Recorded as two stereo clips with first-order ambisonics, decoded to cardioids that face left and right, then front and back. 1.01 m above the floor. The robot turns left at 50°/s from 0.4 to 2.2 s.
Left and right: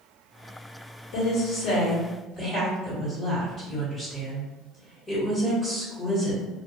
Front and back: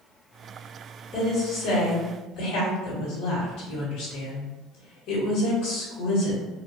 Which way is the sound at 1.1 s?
70° left.